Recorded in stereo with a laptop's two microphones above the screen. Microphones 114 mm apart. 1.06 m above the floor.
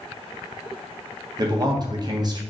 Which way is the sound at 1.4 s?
35° right (ahead or behind).